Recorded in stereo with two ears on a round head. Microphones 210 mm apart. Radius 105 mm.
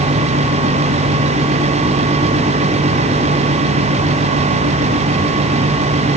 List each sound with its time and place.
Only background noise.